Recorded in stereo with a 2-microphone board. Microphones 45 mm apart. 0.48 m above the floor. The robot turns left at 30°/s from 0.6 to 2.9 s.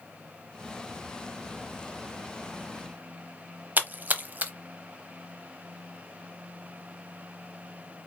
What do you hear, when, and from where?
3.8 s a splash: 40° right (ahead or behind), 0.7 m